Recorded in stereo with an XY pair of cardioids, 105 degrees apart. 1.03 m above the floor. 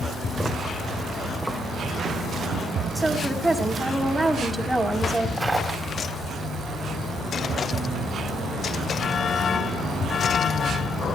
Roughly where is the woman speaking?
Ahead.